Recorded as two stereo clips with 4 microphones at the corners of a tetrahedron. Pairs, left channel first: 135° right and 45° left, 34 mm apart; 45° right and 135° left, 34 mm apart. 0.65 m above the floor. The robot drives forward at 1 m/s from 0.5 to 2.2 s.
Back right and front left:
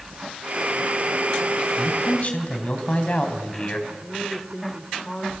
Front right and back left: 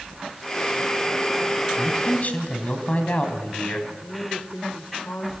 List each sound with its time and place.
1.8 s a man speaking: 80° right, 4 m; by 3.8 s 85° right, 4 m
3.9 s a woman speaking: 55° right, 2 m